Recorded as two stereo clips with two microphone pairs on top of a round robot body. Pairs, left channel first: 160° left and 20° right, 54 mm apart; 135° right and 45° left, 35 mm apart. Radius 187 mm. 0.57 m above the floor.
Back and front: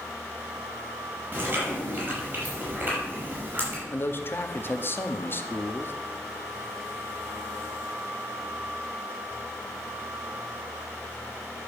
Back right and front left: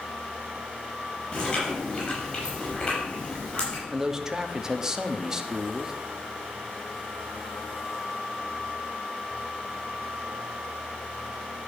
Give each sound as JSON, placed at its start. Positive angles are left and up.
{"t": 1.3, "sound": "chewing", "azimuth_deg": -75, "distance_m": 6.0}
{"t": 3.9, "sound": "a man speaking", "azimuth_deg": 115, "distance_m": 1.1}